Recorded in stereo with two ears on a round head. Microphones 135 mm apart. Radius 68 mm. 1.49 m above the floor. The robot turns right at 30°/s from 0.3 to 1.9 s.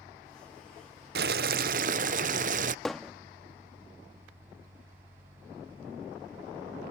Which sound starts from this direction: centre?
Hammering, at 2.9 s.